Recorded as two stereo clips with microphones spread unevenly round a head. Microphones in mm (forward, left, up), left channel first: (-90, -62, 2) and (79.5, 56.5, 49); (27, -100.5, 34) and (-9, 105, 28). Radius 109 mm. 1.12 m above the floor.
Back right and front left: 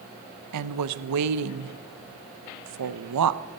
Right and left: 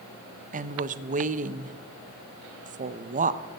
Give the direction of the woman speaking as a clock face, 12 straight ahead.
11 o'clock.